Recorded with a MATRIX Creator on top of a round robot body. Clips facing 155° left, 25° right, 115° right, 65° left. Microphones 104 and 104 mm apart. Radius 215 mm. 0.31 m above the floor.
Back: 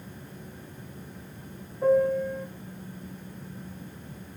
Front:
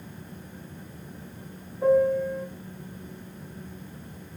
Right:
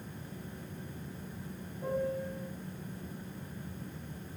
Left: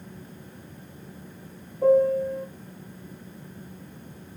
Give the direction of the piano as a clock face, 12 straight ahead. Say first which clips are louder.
Front 1 dB, left 15 dB; 10 o'clock.